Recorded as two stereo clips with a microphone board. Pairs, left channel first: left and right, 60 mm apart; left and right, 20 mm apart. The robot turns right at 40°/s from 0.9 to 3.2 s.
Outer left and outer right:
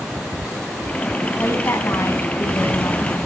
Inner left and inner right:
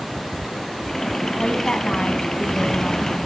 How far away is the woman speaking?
About 2 m.